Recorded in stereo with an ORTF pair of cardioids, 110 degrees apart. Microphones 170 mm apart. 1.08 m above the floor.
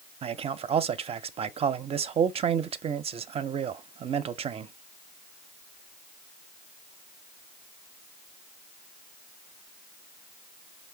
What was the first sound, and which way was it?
A man speaking, 35° right.